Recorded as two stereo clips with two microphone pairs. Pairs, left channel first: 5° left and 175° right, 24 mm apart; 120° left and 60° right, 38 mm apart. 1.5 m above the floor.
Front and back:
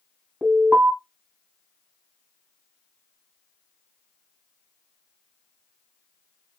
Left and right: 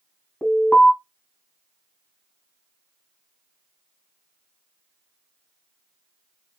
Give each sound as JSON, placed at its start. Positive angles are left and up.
{"t": 0.4, "sound": "an alarm", "azimuth_deg": -170, "distance_m": 2.5}